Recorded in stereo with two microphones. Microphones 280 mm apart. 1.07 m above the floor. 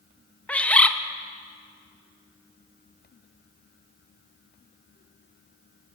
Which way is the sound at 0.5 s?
5° left (ahead or behind).